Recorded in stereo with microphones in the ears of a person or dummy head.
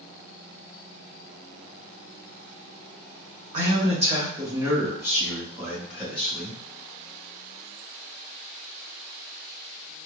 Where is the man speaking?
40° right (ahead or behind), 1.2 m; by 6.6 s 5° left (ahead or behind), 2.5 m.